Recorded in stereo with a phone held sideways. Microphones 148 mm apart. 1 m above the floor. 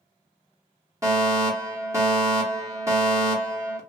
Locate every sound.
1.0 s a fire alarm: 20° right (ahead or behind), 1.2 m